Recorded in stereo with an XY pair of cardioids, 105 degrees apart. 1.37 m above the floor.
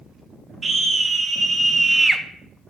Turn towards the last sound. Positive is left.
turn(degrees=0)